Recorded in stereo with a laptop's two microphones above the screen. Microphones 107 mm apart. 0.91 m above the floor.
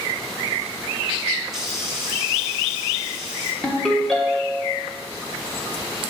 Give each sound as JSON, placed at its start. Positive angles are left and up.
{"t": 1.5, "sound": "a hiss", "side_deg": -5, "distance_m": 1.2}
{"t": 3.6, "sound": "a ringtone", "side_deg": 5, "distance_m": 1.3}